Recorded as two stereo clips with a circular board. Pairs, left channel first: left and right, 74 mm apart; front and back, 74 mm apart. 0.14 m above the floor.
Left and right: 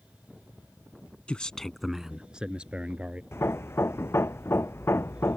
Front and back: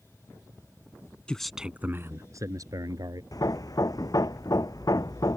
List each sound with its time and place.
1.3 s a man speaking: 45° left; by 3.2 s 165° right
3.3 s hammering: 35° left